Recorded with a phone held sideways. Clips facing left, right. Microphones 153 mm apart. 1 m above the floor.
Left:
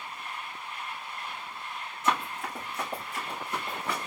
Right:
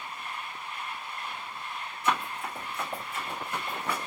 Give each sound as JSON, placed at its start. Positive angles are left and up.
{"t": 2.0, "sound": "running footsteps", "side_deg": 50, "distance_m": 3.5}